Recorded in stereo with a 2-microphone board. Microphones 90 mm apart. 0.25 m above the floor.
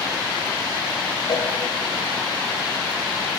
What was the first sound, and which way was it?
A cowbell, 50° left (ahead or behind).